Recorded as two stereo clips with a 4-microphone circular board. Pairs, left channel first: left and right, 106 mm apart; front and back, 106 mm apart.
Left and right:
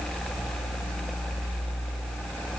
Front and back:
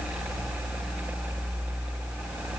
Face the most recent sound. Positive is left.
No sound to turn to.